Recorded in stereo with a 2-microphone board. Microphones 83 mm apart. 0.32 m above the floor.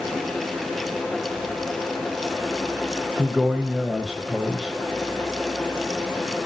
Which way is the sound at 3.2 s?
10° right (ahead or behind).